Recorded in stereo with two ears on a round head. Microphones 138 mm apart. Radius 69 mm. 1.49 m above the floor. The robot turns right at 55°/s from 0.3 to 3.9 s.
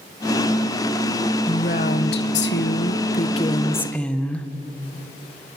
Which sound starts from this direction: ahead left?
A woman speaking, at 1.5 s.